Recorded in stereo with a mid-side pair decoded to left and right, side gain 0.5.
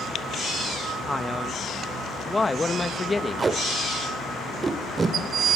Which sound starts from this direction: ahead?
A man speaking, at 1.1 s.